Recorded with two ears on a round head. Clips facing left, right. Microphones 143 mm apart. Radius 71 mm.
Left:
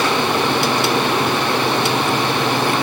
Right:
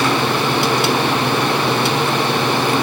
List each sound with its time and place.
Only background noise.